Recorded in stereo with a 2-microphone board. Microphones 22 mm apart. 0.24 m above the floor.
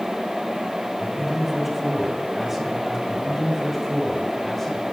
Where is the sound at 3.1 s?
10° left (ahead or behind), 1.1 m.